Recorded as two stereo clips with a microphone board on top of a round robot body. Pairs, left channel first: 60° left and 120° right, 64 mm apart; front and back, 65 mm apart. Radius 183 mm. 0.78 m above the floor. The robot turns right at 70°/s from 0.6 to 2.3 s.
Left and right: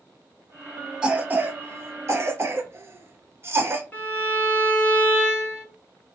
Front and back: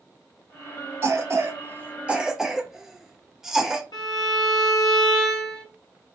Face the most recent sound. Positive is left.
turn(degrees=-5)